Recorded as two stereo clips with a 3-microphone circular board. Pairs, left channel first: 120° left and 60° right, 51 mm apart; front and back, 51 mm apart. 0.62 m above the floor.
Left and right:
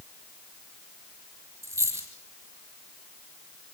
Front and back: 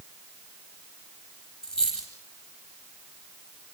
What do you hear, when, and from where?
1.6 s a dropped coin: 75° right, 9 m